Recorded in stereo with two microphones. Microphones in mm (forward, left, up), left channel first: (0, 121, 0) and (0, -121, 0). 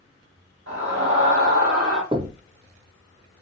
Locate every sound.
0.7 s a scream: 50° right (ahead or behind), 1.8 m
2.1 s knocking: 20° right (ahead or behind), 0.6 m